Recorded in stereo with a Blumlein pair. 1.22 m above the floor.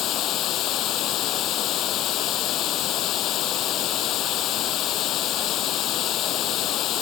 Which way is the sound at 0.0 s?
35° left.